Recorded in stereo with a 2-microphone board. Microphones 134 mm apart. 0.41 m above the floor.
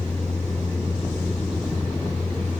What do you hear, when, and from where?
0.0 s a vehicle: 10° left (ahead or behind)